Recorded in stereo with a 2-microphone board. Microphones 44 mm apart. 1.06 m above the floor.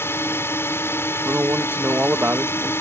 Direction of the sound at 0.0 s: 70° left (ahead or behind).